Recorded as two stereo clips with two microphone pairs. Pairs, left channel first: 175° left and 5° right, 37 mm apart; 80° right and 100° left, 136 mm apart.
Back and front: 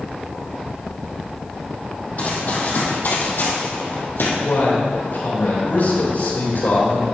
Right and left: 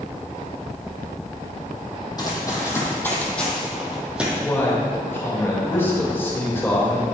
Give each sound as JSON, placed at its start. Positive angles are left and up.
{"t": 2.2, "sound": "running footsteps", "azimuth_deg": -140, "distance_m": 2.5}
{"t": 4.4, "sound": "a man speaking", "azimuth_deg": -155, "distance_m": 3.0}